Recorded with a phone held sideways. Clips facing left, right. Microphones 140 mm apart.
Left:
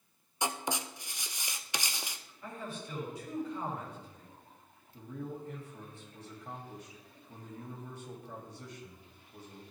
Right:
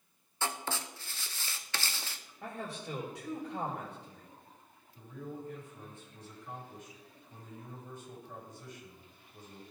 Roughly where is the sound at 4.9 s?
Left.